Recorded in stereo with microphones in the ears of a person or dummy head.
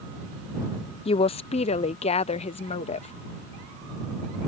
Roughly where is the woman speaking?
Left.